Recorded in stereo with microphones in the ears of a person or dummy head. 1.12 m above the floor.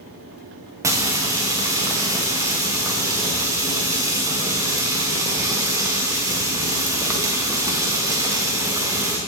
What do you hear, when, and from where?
0.8 s frying: 10° right (ahead or behind), 0.8 m